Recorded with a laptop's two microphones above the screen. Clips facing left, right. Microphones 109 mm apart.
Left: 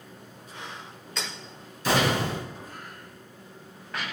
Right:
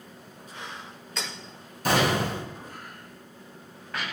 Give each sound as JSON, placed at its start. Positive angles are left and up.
{"t": 1.9, "sound": "an explosion", "side_deg": -55, "distance_m": 3.0}